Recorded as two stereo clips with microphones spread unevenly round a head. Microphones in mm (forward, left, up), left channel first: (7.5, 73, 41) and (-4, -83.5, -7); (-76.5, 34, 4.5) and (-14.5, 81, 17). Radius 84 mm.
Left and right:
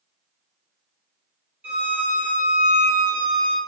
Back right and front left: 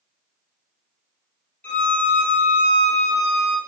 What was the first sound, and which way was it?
A violin, 155° left.